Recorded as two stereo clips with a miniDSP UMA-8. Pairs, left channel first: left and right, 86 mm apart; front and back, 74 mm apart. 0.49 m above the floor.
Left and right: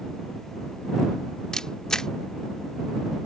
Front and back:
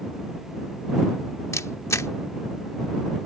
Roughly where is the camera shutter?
Ahead.